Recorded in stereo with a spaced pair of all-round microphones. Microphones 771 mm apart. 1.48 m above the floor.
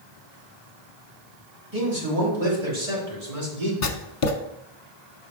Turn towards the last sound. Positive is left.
turn(degrees=45)  # may be behind; listen again after turning